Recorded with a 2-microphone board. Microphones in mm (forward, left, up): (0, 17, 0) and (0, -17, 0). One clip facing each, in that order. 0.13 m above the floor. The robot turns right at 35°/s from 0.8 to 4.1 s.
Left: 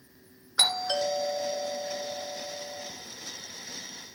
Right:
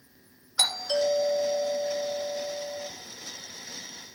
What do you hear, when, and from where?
0.6 s a doorbell: 140° left, 2 m; by 2.9 s 145° right, 2 m